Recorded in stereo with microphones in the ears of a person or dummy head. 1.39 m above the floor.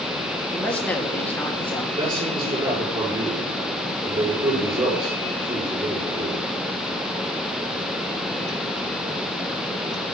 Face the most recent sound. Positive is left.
turn(degrees=-20)  # may be behind; listen again after turning